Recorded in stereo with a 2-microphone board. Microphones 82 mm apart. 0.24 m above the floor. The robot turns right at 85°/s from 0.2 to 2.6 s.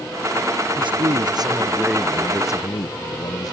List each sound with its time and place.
0.8 s a man speaking: 110° right; by 3.5 s 50° left